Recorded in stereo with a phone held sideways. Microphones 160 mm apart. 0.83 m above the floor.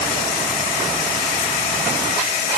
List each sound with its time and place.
Only background noise.